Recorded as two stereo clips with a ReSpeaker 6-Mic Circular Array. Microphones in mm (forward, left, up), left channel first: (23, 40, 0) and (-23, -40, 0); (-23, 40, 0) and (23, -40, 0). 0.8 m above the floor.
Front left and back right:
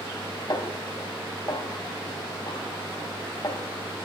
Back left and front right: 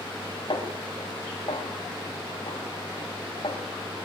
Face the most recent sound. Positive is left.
turn(degrees=100)